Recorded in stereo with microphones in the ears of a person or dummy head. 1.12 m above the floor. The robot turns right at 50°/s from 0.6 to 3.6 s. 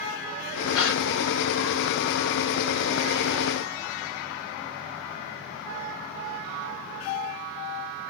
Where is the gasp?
70° left (ahead or behind), 1.0 m; by 1.0 s 55° left (ahead or behind), 1.0 m.